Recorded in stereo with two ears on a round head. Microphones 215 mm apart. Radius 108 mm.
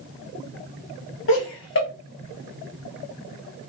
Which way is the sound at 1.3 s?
50° left (ahead or behind).